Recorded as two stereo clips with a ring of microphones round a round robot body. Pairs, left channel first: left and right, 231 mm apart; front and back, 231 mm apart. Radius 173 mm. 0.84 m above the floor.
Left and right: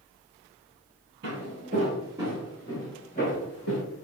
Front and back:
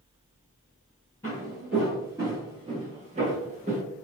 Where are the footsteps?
80° right, 1.0 m; by 3.8 s 130° left, 1.3 m.